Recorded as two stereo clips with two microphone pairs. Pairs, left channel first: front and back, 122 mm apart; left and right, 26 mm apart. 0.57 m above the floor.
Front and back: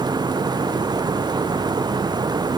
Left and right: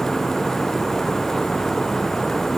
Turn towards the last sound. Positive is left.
No sound to turn to.